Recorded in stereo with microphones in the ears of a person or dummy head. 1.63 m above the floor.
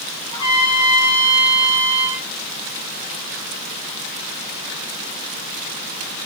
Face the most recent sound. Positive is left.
turn(degrees=20)  # may be behind; listen again after turning